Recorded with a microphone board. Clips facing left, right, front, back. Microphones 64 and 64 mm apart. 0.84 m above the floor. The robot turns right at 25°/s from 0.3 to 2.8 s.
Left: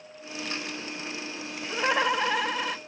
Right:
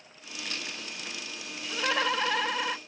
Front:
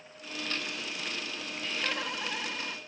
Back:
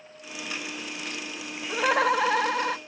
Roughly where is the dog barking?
I don't hear a dog barking.